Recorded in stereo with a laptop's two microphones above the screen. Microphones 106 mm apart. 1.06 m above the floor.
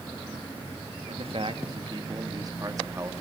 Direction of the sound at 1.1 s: 65° right (ahead or behind).